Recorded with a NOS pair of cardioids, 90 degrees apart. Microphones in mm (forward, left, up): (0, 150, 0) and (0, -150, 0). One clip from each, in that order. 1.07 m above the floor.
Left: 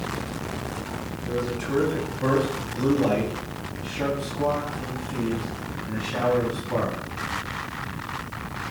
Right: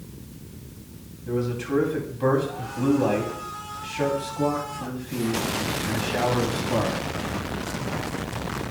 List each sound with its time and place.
1.3 s a man speaking: 5° right, 8.5 m; by 7.0 s 25° right, 9.5 m